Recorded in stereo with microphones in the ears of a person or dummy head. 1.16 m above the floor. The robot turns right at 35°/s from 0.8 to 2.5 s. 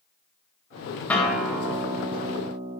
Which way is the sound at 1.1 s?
170° left.